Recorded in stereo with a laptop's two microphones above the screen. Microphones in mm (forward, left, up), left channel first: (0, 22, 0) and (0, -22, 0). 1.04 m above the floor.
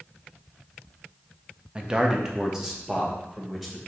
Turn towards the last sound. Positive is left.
turn(degrees=-10)  # may be behind; listen again after turning